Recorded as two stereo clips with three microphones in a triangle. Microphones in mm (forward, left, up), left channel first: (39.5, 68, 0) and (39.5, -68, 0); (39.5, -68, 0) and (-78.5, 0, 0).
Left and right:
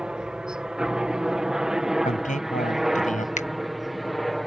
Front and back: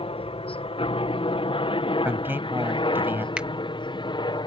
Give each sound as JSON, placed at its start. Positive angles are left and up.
{"t": 0.0, "sound": "a helicopter", "azimuth_deg": -10}
{"t": 2.0, "sound": "a man speaking", "azimuth_deg": 75}
{"t": 3.4, "sound": "a finger snap", "azimuth_deg": 70}